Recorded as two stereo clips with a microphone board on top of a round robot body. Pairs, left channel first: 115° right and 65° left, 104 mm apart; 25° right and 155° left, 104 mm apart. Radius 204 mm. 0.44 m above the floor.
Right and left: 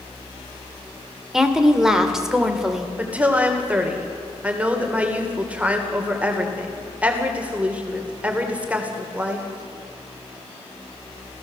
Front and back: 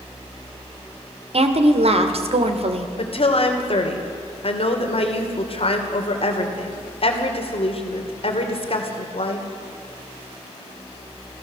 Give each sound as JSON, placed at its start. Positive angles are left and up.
{"t": 1.3, "sound": "a woman speaking", "azimuth_deg": 150, "distance_m": 2.0}
{"t": 3.0, "sound": "a woman speaking", "azimuth_deg": -10, "distance_m": 3.0}